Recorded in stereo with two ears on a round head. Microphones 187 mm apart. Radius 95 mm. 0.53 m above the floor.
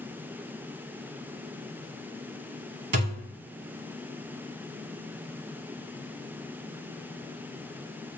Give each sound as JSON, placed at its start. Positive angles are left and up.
{"t": 2.9, "sound": "a thud", "side_deg": -50, "distance_m": 0.8}